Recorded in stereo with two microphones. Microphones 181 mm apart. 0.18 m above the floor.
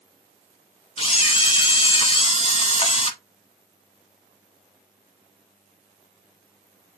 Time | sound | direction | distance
1.0 | a camera shutter | 35° left (ahead or behind) | 0.7 m